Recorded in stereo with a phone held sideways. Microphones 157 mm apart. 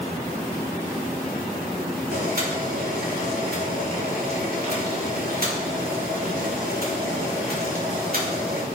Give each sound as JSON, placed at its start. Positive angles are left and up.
{"t": 2.1, "sound": "boiling", "side_deg": -70, "distance_m": 3.5}